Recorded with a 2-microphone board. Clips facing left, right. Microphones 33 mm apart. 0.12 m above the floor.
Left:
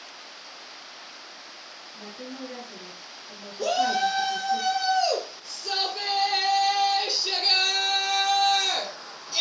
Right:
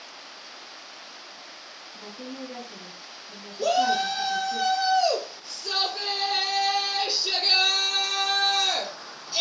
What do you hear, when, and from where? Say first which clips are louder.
1.9 s a woman speaking: right 1 dB; 25° left (ahead or behind), 1.3 m
3.6 s a shout: right 1 dB; 20° right (ahead or behind), 1.4 m